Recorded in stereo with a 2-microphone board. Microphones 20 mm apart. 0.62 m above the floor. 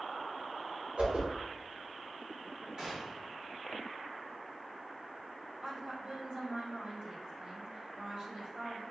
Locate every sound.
1.0 s a whoosh: 80° right, 1.3 m
2.8 s a gunshot: 40° right (ahead or behind), 1.1 m
5.6 s a woman speaking: 50° right (ahead or behind), 1.5 m